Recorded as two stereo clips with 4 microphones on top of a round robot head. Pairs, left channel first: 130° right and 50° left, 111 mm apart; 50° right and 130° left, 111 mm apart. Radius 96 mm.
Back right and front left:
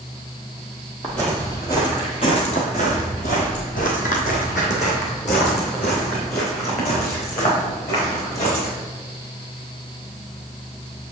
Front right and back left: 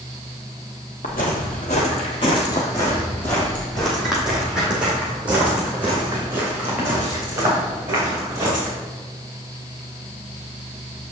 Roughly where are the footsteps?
Ahead right.